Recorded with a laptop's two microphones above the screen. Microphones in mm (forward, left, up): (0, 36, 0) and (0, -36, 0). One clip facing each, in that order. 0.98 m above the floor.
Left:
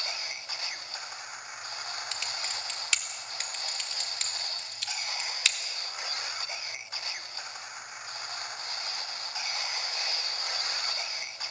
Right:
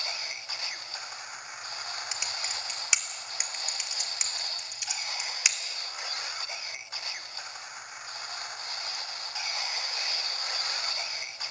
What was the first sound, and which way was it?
Typing on a keyboard, 20° right (ahead or behind).